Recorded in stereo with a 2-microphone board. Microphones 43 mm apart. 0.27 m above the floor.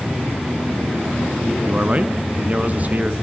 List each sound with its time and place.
1.6 s a man speaking: 35° right (ahead or behind), 2.5 m